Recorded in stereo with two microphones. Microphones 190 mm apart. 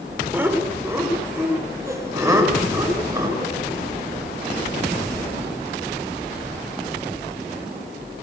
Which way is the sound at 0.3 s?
10° right (ahead or behind).